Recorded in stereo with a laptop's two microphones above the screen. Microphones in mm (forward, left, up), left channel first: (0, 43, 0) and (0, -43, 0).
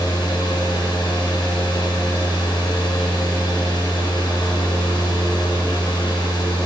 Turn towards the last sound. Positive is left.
turn(degrees=70)  # may be behind; listen again after turning